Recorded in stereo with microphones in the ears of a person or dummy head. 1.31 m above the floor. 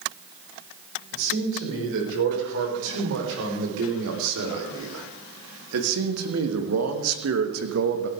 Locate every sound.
1.1 s a man speaking: 75° right (ahead or behind), 6.5 m; by 8.1 s 50° right (ahead or behind), 1.7 m